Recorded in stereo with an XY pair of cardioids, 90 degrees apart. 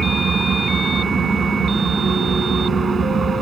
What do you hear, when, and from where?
0.0 s an engine running: 45° right